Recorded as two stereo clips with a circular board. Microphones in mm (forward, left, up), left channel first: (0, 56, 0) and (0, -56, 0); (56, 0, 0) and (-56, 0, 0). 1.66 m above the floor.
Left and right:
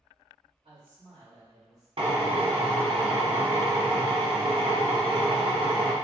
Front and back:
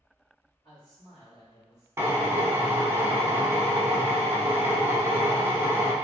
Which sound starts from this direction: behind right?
A drill, at 2.0 s.